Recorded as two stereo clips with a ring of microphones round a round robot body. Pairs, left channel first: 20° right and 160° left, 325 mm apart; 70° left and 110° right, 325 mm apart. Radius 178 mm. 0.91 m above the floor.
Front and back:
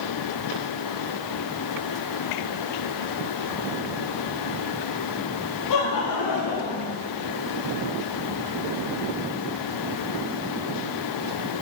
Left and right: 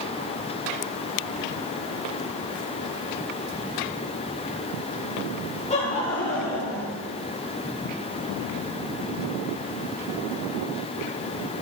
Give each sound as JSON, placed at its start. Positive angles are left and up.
{"t": 5.7, "sound": "laughter", "azimuth_deg": 0, "distance_m": 2.0}